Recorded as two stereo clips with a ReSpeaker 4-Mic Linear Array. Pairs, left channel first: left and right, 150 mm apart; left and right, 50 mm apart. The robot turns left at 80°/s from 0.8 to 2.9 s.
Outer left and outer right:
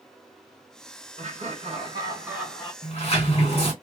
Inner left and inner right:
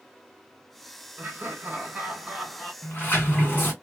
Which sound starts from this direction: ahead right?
Laughter, at 1.2 s.